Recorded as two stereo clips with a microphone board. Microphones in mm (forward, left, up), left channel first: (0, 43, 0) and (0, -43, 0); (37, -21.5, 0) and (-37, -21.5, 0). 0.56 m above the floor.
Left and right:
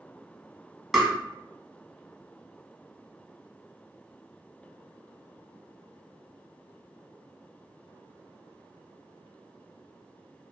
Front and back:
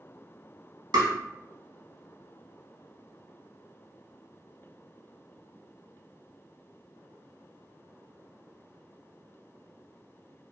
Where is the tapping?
175° right, 0.8 m.